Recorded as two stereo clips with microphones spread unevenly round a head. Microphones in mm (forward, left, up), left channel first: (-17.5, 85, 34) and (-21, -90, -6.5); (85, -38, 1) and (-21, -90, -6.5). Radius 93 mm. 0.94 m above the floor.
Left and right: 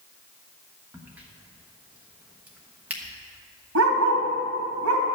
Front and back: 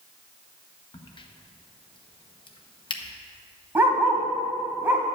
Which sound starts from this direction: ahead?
A crack, at 0.9 s.